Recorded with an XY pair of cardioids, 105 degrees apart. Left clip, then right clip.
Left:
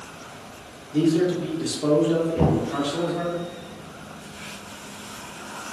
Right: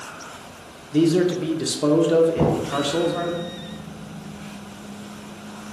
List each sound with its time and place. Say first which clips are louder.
0.9 s a man speaking: right 2 dB; 50° right, 0.7 m
2.4 s knocking: right 1 dB; 30° right, 1.1 m